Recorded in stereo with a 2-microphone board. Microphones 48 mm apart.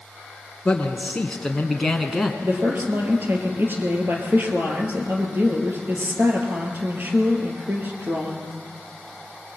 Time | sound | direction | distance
0.7 | a man speaking | 20° left (ahead or behind) | 1.8 m
2.4 | a woman speaking | 45° right (ahead or behind) | 3.5 m